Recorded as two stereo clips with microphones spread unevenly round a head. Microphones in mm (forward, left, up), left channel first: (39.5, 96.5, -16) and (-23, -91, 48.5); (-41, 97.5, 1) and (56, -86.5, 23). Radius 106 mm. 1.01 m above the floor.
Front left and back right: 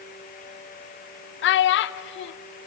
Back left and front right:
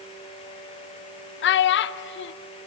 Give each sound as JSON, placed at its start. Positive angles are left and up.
{"t": 1.4, "sound": "a child speaking", "azimuth_deg": 85, "distance_m": 0.6}